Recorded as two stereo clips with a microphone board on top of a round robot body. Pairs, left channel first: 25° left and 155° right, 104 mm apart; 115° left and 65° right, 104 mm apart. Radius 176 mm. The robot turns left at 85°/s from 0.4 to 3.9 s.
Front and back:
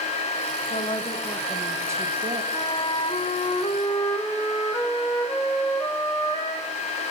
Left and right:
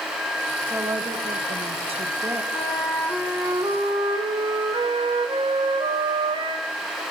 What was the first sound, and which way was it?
A woman speaking, 10° left.